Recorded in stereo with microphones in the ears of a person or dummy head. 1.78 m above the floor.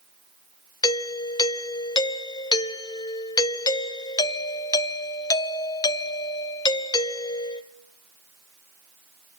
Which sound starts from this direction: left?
A doorbell, at 0.8 s.